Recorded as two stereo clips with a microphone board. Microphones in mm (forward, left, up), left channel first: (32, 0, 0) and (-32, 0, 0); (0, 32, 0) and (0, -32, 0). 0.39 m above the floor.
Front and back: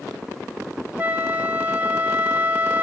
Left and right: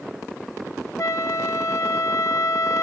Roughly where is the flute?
Behind left.